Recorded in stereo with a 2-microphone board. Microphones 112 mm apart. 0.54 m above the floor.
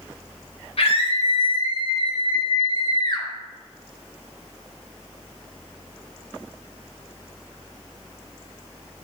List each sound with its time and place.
0.8 s a scream: 65° left (ahead or behind), 2.5 m; by 3.3 s 40° left (ahead or behind), 1.6 m